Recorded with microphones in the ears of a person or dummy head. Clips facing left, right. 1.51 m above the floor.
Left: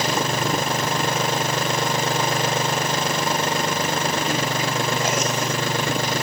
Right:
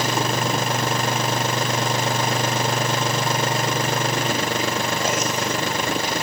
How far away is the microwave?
I don't hear a microwave.